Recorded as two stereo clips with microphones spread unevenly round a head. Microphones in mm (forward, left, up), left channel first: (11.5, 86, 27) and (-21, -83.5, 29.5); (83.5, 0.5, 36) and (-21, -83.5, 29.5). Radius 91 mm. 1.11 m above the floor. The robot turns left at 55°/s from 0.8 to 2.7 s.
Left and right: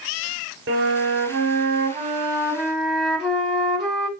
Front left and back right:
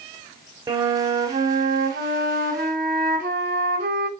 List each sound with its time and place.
0.7 s a flute: 85° right, 1.2 m; by 4.1 s 170° left, 1.2 m